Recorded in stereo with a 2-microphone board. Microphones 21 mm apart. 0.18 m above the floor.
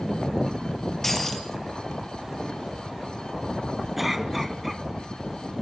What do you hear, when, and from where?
1.0 s breaking glass: 10° left (ahead or behind), 2.5 m
4.0 s a cough: 10° right (ahead or behind), 1.2 m